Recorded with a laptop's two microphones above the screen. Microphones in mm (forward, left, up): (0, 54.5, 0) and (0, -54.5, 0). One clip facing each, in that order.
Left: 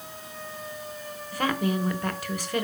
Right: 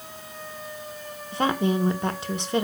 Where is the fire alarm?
No fire alarm in this recording.